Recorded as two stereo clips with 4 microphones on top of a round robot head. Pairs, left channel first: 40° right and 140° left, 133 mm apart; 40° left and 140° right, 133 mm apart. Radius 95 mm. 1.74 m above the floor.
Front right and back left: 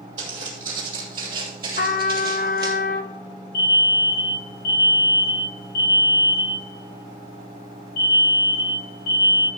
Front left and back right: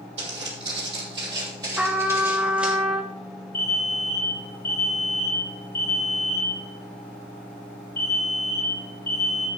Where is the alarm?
35° right, 6 m.